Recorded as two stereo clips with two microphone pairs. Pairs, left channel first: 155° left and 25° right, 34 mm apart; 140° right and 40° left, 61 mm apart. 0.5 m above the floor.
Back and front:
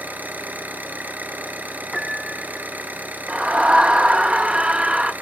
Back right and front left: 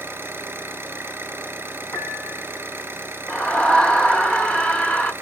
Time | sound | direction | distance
0.0 | an engine running | 15° right | 3 m
1.9 | a piano | 115° right | 1.7 m
3.3 | a scream | 75° right | 1.1 m